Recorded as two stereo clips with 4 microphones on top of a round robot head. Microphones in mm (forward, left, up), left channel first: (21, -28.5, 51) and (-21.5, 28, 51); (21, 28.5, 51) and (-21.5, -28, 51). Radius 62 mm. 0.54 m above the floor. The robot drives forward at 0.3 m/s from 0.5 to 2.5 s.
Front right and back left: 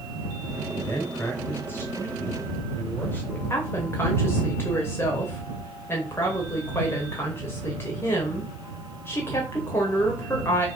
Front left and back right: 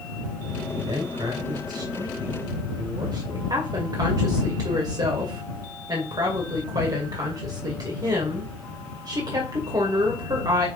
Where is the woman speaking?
105° right, 2.5 m.